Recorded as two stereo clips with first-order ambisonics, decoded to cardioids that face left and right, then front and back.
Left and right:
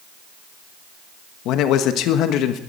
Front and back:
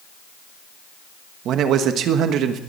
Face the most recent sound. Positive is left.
turn(degrees=130)